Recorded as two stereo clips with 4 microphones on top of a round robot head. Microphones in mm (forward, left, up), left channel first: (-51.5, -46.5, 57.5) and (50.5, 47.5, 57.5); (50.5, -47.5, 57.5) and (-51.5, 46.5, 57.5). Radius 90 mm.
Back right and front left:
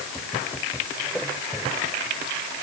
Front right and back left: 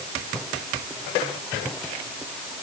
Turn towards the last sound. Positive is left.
No sound to turn to.